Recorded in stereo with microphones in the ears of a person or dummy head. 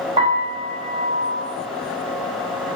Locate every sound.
0.2 s a piano: 20° right (ahead or behind), 0.6 m